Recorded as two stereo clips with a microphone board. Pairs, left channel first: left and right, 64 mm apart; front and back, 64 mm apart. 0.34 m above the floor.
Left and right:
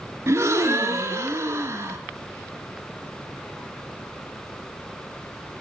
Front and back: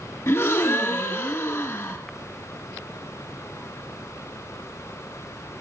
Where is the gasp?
45° right, 2.0 m.